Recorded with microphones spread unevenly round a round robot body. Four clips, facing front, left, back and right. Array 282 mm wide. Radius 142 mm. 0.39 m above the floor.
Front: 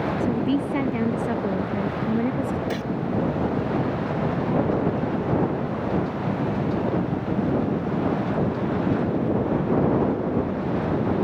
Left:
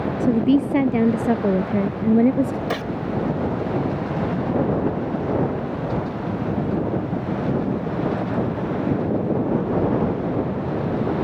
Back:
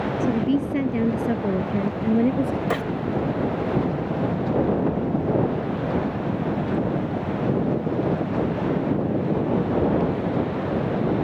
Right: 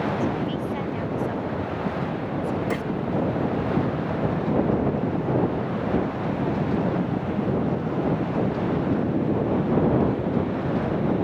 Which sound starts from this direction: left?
A woman speaking, at 0.2 s.